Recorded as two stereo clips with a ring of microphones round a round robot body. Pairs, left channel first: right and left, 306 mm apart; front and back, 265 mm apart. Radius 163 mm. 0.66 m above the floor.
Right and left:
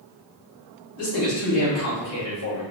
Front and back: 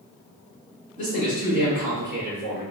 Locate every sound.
1.0 s a man speaking: 60° right, 1.7 m; by 2.6 s 50° right, 2.5 m